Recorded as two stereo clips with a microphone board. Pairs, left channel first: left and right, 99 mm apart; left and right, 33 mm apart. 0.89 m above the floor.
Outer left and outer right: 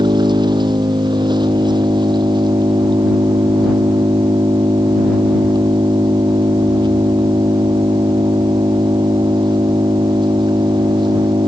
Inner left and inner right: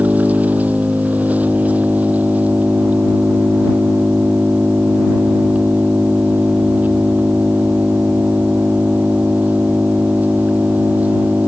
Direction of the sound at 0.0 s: 45° right (ahead or behind).